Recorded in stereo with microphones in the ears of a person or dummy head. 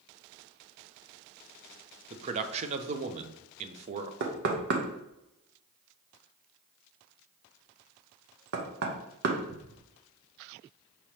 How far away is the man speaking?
About 0.6 m.